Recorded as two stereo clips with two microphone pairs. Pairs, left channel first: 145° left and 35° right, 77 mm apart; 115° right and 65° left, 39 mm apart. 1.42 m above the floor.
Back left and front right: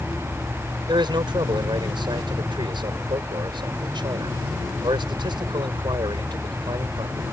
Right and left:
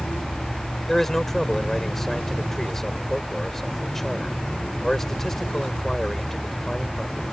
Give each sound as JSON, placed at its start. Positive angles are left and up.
{"t": 0.9, "sound": "a man speaking", "azimuth_deg": -35}